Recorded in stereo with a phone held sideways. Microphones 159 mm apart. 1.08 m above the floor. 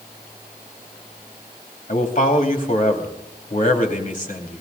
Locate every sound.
1.9 s a man speaking: 50° left (ahead or behind), 2.5 m